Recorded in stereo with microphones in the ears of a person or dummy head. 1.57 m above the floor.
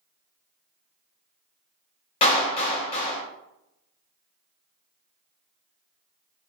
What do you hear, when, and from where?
2.2 s a clap: 35° left (ahead or behind), 1.0 m